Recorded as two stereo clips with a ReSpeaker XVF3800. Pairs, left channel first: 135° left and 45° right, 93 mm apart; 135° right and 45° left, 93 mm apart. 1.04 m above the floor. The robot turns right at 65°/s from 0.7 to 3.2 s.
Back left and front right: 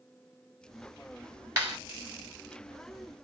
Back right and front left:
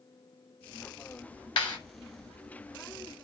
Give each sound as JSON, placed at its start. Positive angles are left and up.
{"t": 1.6, "sound": "a clap", "azimuth_deg": -105, "distance_m": 6.0}